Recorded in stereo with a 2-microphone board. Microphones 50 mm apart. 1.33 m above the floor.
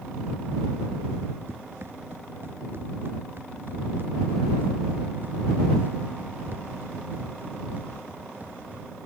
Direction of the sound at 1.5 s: 55° right (ahead or behind).